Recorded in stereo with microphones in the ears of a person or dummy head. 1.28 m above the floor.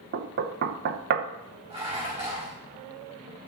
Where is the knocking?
55° right (ahead or behind), 0.7 m.